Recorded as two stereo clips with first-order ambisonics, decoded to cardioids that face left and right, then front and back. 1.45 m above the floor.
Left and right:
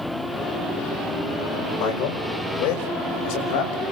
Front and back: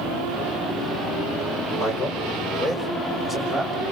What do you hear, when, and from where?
1.8 s a man speaking: 65° left, 5.5 m; by 3.8 s 90° left, 6.5 m